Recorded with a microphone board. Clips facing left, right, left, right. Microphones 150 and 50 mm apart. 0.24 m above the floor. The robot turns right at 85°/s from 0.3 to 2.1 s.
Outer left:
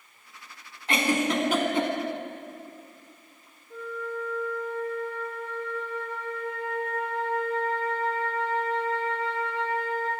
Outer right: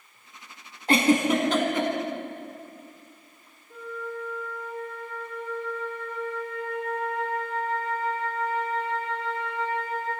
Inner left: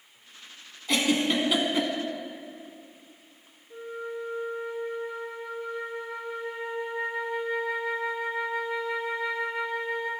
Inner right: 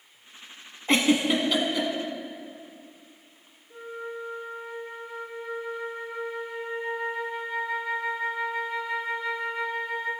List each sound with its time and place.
0.9 s a giggle: 40° right (ahead or behind), 1.1 m; by 1.9 s 35° left (ahead or behind), 1.1 m
3.7 s a flute: centre (ahead or behind), 2.5 m